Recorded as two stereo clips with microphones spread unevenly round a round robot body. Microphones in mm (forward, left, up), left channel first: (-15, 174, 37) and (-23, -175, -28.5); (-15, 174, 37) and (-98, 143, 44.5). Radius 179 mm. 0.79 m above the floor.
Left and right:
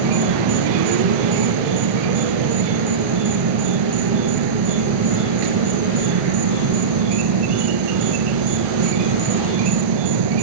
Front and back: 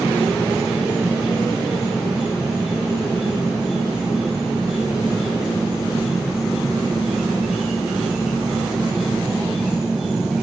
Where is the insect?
75° right, 1.1 m.